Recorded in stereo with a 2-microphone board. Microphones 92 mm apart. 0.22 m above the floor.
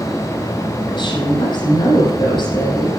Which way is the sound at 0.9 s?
60° left (ahead or behind).